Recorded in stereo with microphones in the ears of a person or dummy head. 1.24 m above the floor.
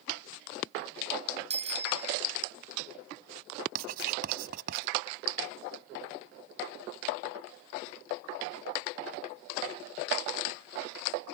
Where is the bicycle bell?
35° right (ahead or behind).